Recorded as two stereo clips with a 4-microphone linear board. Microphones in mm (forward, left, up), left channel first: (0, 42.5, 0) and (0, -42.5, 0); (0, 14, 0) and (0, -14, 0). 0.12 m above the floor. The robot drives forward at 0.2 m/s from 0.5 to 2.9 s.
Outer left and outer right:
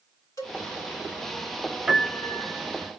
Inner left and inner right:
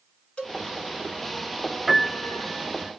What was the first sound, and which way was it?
A cowbell, 45° left (ahead or behind).